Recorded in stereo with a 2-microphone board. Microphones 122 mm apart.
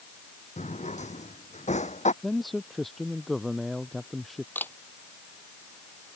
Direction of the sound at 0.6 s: 70° left (ahead or behind).